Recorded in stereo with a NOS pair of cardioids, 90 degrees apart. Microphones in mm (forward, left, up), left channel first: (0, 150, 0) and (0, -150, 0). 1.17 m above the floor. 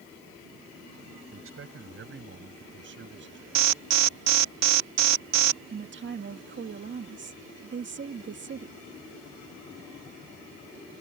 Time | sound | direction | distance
1.3 | a man speaking | 45° right | ?
3.5 | an alarm | 65° right | ?
5.7 | a woman speaking | 40° right | ?